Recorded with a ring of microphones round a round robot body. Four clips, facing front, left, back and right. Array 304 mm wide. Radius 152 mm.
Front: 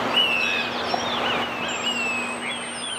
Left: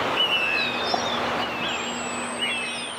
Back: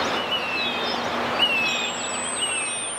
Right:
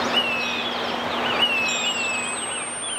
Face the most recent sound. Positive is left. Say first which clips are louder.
# right 1 dB, front 1 dB
turn(degrees=-130)